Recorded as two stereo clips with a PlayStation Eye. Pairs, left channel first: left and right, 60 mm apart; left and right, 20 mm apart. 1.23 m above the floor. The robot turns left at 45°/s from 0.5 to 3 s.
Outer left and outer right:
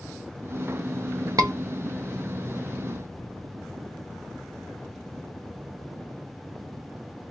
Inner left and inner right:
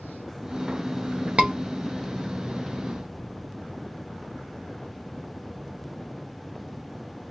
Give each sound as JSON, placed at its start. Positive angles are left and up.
{"t": 1.4, "sound": "a scream", "side_deg": -80, "distance_m": 1.2}